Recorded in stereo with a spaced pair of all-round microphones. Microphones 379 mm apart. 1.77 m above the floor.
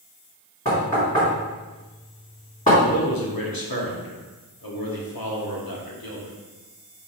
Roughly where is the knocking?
Left.